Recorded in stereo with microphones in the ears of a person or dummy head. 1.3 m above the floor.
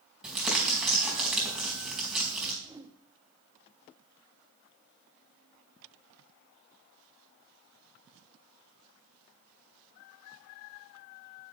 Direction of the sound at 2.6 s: 10° right (ahead or behind).